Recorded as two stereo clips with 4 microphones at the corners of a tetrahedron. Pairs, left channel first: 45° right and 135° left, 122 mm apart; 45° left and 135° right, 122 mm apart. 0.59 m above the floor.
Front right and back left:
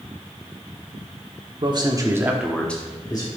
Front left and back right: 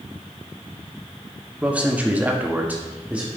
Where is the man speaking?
150° left, 1.7 m; by 3.3 s 65° right, 1.5 m.